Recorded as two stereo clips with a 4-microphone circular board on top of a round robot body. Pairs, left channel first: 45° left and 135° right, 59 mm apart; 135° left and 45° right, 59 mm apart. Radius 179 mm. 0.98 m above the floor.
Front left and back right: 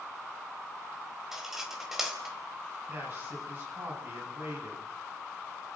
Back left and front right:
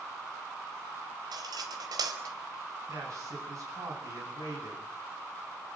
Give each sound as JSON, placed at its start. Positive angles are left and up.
{"t": 1.3, "sound": "cutlery clinking", "azimuth_deg": -50, "distance_m": 3.5}
{"t": 2.9, "sound": "a man speaking", "azimuth_deg": -85, "distance_m": 9.5}